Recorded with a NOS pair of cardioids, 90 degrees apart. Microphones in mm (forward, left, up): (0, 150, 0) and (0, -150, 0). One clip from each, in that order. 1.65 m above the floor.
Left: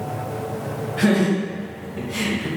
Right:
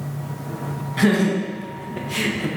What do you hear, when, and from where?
1.0 s laughter: 60° right, 1.8 m; by 2.5 s 80° right, 0.9 m